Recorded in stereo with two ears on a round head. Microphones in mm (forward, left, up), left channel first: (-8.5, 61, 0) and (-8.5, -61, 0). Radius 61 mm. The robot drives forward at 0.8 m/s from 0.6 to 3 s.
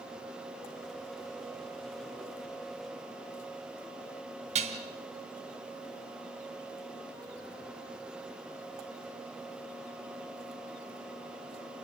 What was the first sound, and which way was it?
Dishes clattering, 50° right (ahead or behind).